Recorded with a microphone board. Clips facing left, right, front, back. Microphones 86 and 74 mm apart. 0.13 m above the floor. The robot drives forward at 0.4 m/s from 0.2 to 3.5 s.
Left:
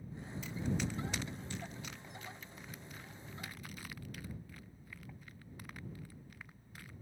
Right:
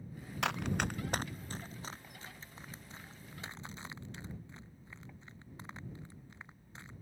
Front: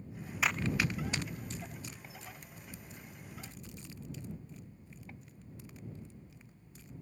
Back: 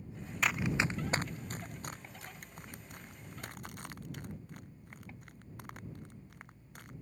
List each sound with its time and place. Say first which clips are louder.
0.4 s running footsteps: right 4 dB, even; 85° right; by 6.9 s 155° right